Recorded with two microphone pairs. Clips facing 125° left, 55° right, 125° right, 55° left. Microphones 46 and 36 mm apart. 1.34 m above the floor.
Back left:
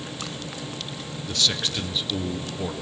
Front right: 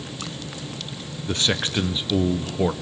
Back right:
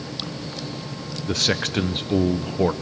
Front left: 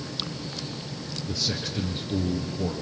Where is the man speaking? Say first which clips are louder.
Front right 3 dB, back right 8 dB; 120° right, 0.7 m.